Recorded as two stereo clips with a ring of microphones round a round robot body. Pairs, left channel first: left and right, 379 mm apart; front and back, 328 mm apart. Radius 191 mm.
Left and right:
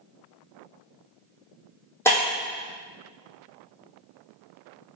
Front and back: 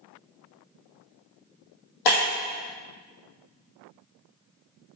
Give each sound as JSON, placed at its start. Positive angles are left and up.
{"t": 2.0, "sound": "breaking glass", "azimuth_deg": 5, "distance_m": 3.5}